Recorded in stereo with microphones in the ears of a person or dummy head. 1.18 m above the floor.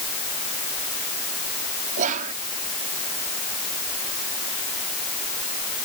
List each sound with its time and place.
2.0 s whispering: 40° right (ahead or behind)